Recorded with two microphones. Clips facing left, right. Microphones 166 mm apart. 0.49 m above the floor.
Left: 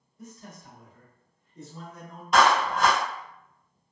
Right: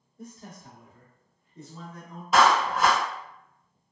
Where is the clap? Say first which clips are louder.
Even; 5° right (ahead or behind), 0.9 m.